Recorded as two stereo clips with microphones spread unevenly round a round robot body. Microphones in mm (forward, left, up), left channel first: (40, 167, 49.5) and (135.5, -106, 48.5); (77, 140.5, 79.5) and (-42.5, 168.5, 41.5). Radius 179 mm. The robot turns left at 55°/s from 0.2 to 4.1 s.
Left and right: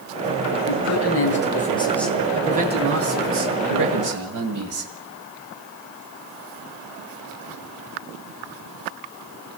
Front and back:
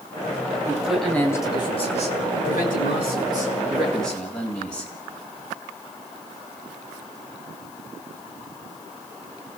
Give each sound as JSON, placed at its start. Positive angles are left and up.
{"t": 0.7, "sound": "a man speaking", "azimuth_deg": 95, "distance_m": 3.5}